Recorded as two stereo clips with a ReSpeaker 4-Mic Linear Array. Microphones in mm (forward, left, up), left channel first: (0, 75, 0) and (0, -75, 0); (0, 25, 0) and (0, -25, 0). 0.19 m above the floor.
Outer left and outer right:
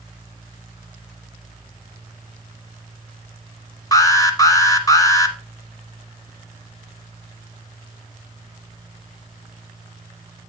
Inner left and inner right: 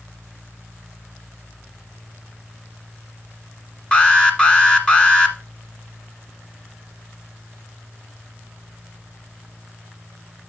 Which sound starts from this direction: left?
An alarm, at 3.9 s.